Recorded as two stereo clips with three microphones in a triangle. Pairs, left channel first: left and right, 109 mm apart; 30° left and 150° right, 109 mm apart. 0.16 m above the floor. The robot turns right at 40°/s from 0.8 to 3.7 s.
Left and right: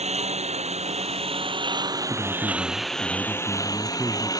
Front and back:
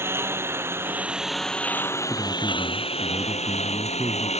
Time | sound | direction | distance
0.0 | a lawn mower | 80° right | ?
2.1 | a man speaking | 135° left | ?